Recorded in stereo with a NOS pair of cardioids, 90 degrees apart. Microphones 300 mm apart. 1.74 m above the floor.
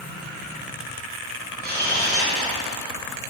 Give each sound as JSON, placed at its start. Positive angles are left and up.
{"t": 1.6, "sound": "a camera shutter", "azimuth_deg": -35, "distance_m": 1.3}